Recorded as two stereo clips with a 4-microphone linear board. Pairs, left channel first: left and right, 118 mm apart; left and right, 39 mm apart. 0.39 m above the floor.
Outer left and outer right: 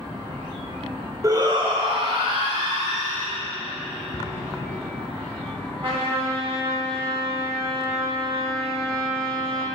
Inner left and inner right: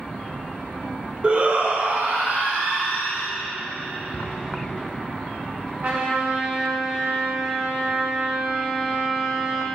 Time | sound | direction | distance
1.2 | a shout | 30° right (ahead or behind) | 1.0 m
4.1 | an explosion | 25° left (ahead or behind) | 1.8 m
5.8 | a trumpet | 50° right (ahead or behind) | 2.5 m